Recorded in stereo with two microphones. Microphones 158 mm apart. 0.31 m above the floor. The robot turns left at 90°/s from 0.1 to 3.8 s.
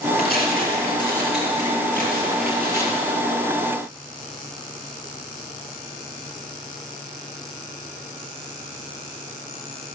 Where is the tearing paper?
100° left, 5 m; by 3.0 s 150° right, 5 m.